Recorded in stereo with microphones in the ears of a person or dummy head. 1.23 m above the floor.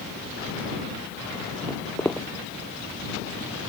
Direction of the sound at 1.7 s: 5° left (ahead or behind).